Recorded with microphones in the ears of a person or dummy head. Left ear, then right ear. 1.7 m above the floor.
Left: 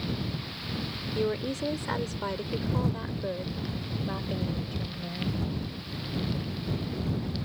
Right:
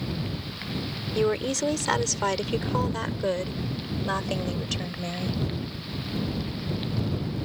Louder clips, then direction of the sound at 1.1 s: Right 5 dB; 30° right (ahead or behind).